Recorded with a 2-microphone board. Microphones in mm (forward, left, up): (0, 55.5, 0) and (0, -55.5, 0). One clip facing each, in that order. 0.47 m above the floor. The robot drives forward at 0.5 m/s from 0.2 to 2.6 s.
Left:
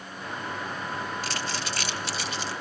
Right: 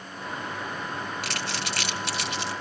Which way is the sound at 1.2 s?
75° right (ahead or behind).